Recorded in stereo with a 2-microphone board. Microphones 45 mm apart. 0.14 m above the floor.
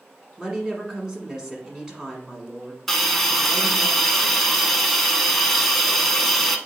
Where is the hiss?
5° left (ahead or behind), 0.6 m.